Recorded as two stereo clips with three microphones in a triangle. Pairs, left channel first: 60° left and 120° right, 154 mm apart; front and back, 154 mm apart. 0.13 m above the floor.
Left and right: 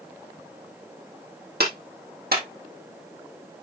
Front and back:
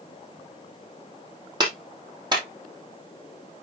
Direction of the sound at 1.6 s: 120° right.